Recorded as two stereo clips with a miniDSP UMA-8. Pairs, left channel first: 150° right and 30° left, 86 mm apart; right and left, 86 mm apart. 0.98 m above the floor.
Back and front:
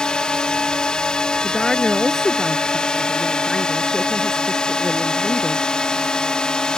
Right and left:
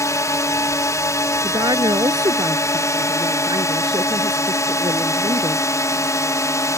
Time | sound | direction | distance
0.0 | a drone | 75° right | ?
1.4 | a woman speaking | 125° left | ?